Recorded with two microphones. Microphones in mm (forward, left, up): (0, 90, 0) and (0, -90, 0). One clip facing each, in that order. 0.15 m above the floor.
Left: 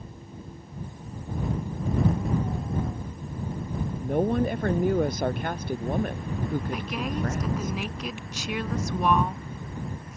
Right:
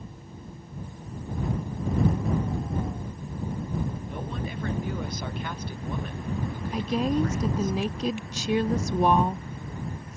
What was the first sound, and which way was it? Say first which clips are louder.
A woman speaking: left 10 dB; 55° left (ahead or behind).